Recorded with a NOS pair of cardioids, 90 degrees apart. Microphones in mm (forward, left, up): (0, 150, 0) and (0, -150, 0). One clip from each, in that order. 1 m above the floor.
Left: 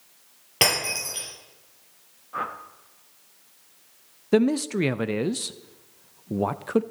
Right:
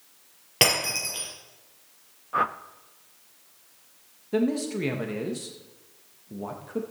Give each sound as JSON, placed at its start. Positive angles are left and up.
{"t": 0.6, "sound": "breaking glass", "azimuth_deg": -10, "distance_m": 6.0}
{"t": 2.3, "sound": "a whoosh", "azimuth_deg": -30, "distance_m": 0.6}
{"t": 4.3, "sound": "a man speaking", "azimuth_deg": 55, "distance_m": 0.5}